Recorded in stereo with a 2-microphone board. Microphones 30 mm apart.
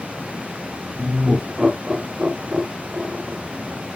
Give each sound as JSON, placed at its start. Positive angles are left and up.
{"t": 1.0, "sound": "laughter", "side_deg": -20, "distance_m": 1.5}